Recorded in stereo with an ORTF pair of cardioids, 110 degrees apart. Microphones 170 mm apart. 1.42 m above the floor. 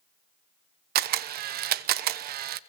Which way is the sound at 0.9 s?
70° right.